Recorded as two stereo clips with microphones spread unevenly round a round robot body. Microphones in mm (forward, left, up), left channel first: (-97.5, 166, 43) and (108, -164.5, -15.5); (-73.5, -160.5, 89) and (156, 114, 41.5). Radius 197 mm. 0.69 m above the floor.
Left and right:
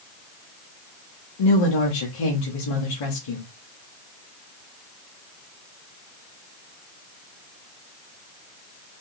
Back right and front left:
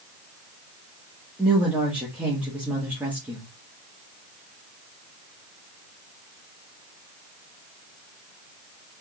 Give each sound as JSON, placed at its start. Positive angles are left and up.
{"t": 1.4, "sound": "a woman speaking", "azimuth_deg": 130, "distance_m": 1.3}